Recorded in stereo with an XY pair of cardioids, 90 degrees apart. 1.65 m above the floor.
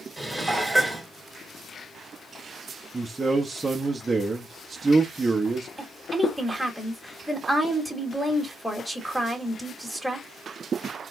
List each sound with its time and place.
0.2 s dishes clattering: straight ahead, 2.5 m
2.9 s a man speaking: 25° right, 1.1 m
5.8 s a woman speaking: straight ahead, 2.5 m